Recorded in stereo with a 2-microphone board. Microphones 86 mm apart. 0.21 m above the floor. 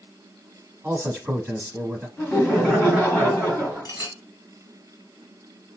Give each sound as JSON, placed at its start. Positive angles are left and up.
{"t": 0.8, "sound": "a man speaking", "side_deg": -20, "distance_m": 1.0}
{"t": 2.2, "sound": "laughter", "side_deg": 20, "distance_m": 1.4}
{"t": 3.9, "sound": "a clink", "side_deg": 55, "distance_m": 1.0}